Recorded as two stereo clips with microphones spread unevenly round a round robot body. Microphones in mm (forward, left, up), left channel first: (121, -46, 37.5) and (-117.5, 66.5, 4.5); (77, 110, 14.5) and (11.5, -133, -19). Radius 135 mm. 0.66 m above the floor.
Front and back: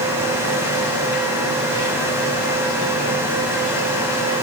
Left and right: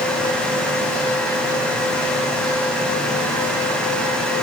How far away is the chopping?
I don't hear chopping.